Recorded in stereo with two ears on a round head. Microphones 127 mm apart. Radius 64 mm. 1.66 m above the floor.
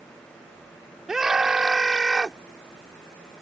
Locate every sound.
1.1 s a scream: 5° right (ahead or behind)